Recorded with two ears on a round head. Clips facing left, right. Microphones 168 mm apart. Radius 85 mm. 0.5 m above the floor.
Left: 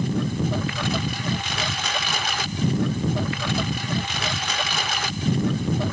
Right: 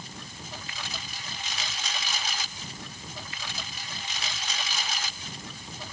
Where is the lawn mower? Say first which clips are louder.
Left 20 dB; 50° left (ahead or behind).